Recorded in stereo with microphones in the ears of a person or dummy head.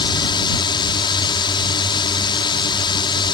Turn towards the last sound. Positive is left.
turn(degrees=25)  # may be behind; listen again after turning